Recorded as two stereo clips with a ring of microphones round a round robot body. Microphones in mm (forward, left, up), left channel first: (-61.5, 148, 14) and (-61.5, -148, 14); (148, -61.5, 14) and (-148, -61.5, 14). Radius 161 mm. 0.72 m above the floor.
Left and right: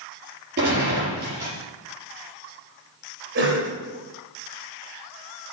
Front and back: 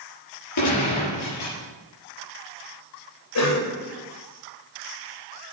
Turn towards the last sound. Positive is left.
turn(degrees=-30)